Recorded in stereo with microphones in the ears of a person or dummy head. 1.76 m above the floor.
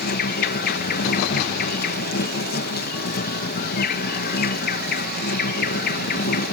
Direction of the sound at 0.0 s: 50° left (ahead or behind).